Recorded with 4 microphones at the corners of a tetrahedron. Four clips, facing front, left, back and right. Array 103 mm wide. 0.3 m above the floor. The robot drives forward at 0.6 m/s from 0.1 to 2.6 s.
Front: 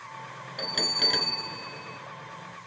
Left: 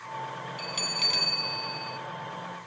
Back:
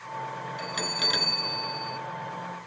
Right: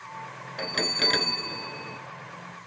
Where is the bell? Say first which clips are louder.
Right 5 dB, front 3 dB; 70° right, 1.4 m; by 2.0 s 105° right, 1.4 m.